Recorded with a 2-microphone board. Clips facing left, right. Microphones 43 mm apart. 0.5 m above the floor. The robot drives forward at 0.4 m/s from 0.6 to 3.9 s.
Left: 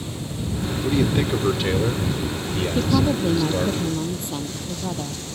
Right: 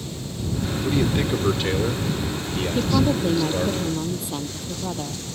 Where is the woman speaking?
Centre (ahead or behind).